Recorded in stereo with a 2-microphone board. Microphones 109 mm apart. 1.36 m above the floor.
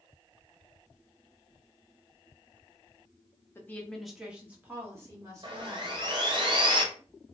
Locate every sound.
3.5 s a woman speaking: 20° left (ahead or behind), 0.6 m; by 6.0 s 35° right (ahead or behind), 1.5 m
5.4 s sawing: 45° right (ahead or behind), 0.7 m